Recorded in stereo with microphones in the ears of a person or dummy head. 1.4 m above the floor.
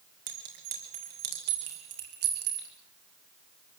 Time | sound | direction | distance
0.3 | a clink | 55° right (ahead or behind) | 4 m